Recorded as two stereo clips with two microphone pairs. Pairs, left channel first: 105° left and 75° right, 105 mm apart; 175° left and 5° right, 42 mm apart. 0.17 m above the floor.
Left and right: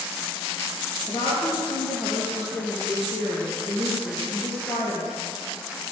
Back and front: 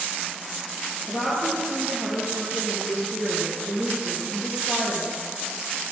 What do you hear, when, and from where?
1.1 s a woman speaking: 30° left, 4 m